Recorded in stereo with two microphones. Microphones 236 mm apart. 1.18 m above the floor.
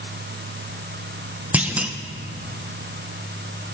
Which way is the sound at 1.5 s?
5° right (ahead or behind).